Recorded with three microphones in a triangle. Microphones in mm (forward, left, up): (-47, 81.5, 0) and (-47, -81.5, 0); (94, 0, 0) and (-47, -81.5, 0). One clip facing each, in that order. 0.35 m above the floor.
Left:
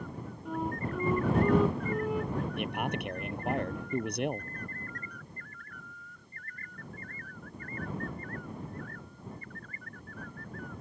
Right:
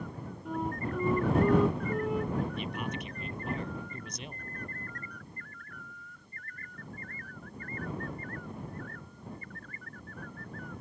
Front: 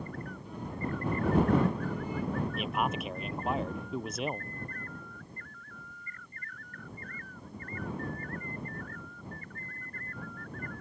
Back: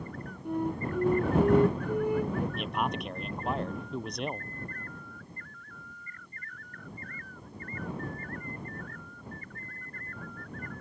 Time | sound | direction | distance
0.5 | a flute | straight behind | ?
2.6 | a man speaking | 115° left | ?